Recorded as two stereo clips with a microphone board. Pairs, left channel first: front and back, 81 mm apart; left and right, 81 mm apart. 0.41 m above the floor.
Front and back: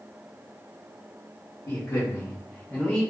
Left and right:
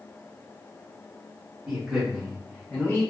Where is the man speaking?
20° right, 1.0 m; by 3.0 s 65° left, 0.9 m.